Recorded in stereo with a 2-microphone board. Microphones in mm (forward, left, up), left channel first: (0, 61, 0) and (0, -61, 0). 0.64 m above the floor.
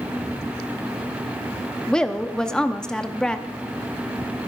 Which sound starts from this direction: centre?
A woman speaking, at 1.9 s.